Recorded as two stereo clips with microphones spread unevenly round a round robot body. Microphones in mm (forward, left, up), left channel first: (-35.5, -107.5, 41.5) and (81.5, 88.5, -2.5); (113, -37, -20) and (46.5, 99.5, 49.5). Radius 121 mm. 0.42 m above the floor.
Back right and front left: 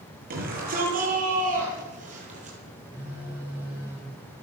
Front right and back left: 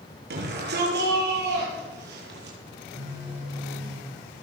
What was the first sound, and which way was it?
A shout, 115° left.